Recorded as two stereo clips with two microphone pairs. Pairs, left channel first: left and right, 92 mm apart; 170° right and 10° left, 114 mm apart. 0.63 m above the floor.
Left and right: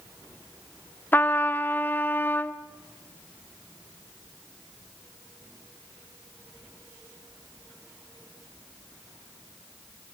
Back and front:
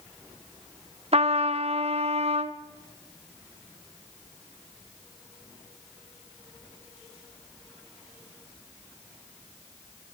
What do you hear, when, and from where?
1.1 s a trumpet: 20° left, 1.1 m